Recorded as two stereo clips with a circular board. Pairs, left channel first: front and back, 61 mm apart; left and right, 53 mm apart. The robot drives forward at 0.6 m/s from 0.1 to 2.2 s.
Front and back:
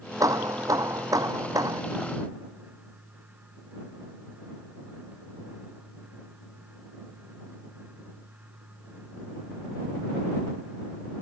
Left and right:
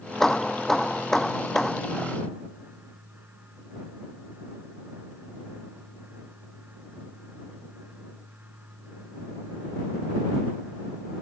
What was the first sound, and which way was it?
Hammering, 175° left.